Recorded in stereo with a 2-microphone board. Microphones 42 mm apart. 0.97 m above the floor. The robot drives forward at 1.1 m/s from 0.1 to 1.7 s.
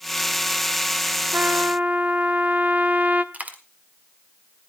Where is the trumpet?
50° right (ahead or behind), 0.6 m; by 3.2 s 35° right (ahead or behind), 0.8 m.